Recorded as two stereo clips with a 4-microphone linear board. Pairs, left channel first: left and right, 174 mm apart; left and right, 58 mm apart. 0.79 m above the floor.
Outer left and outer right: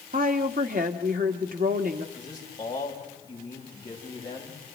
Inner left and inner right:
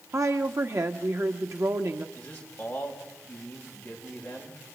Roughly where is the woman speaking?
Right.